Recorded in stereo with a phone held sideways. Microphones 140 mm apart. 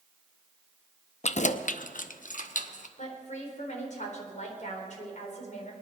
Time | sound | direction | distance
1.2 | keys jangling | 55° left (ahead or behind) | 0.6 m
3.0 | a woman speaking | 65° left (ahead or behind) | 4 m